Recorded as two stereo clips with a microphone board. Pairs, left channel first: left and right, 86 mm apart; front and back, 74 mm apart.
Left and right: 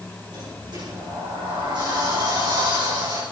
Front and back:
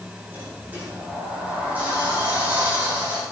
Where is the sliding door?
110° right, 8 m.